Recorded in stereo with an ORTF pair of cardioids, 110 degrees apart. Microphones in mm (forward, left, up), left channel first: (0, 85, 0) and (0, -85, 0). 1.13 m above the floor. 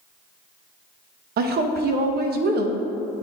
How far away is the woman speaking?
About 1.0 m.